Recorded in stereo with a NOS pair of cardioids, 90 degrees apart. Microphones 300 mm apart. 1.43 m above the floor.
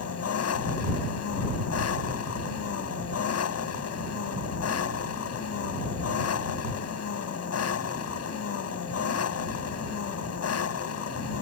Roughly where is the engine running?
Ahead left.